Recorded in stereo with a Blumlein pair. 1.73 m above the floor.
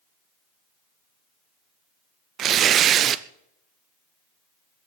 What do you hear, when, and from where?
2.4 s tearing paper: 30° right, 0.6 m